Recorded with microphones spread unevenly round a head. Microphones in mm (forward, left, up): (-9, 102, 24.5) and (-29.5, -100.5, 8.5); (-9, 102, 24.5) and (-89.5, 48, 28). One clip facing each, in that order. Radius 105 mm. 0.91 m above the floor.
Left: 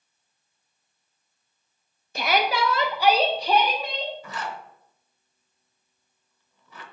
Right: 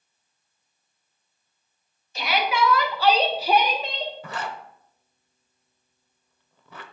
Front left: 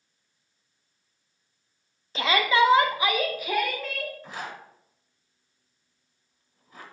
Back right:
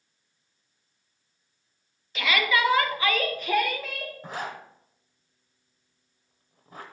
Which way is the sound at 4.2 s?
110° right.